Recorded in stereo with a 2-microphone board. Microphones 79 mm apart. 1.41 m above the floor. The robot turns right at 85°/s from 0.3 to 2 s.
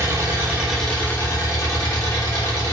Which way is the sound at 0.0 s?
40° right.